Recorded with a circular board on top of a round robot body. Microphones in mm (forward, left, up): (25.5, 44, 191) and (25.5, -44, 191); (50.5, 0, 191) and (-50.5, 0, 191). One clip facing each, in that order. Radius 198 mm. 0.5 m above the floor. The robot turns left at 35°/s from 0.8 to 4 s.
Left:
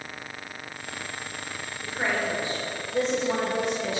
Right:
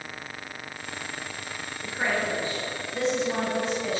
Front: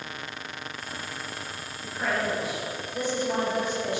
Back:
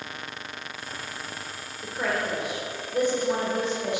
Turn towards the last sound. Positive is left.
turn(degrees=110)